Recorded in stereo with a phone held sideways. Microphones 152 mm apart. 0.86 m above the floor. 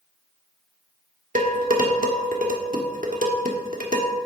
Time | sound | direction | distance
1.4 | dishes clattering | 65° right (ahead or behind) | 1.4 m